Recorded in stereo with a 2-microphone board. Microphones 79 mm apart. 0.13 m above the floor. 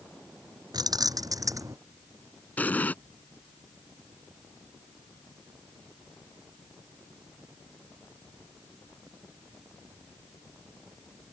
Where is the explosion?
20° left (ahead or behind).